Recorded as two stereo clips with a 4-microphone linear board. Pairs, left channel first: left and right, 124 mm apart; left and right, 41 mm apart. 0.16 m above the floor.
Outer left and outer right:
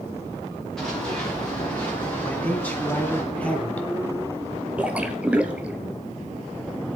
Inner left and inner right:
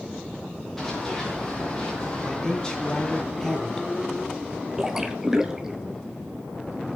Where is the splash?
10° right (ahead or behind), 1.1 m.